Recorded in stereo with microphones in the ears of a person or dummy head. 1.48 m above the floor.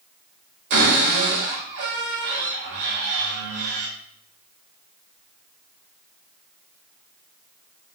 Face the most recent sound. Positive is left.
turn(degrees=-55)  # may be behind; listen again after turning